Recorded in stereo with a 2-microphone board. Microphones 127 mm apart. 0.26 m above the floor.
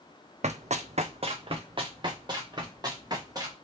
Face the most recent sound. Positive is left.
turn(degrees=-30)  # may be behind; listen again after turning